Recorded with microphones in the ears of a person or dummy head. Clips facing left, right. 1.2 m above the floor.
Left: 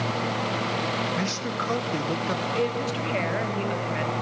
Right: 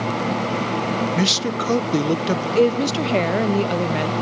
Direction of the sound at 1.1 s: 40° right (ahead or behind).